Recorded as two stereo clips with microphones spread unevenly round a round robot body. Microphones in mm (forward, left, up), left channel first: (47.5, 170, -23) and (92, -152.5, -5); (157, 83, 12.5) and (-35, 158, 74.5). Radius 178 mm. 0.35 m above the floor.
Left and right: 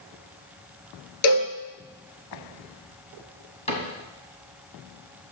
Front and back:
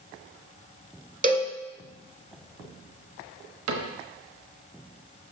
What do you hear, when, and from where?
1.2 s a cowbell: 105° left, 1.6 m
3.7 s a cupboard door: 170° left, 1.2 m